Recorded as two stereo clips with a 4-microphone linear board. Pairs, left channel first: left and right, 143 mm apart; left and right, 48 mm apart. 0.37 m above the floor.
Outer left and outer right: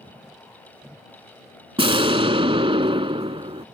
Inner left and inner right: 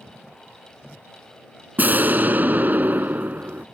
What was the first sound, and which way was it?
An explosion, 40° right (ahead or behind).